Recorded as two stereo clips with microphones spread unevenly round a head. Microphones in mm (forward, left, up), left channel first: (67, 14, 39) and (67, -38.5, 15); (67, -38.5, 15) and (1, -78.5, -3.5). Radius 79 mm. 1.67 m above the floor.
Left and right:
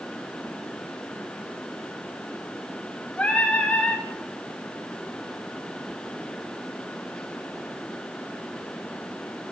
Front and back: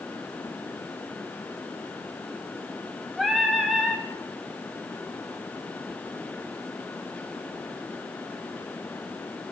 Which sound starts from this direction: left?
Singing, at 3.2 s.